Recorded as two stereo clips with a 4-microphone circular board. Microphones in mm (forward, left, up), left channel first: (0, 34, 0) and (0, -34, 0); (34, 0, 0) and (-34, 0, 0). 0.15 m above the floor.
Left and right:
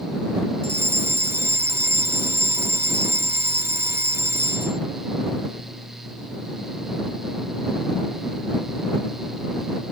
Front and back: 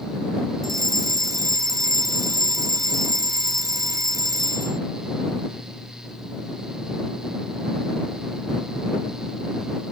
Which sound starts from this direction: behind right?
A fire alarm, at 0.6 s.